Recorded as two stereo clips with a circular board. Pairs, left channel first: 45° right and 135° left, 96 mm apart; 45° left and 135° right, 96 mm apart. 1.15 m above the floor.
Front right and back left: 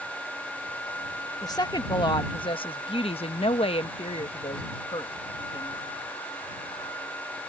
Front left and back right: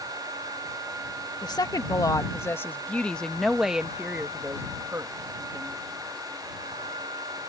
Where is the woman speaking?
Straight ahead; by 5.8 s 85° right.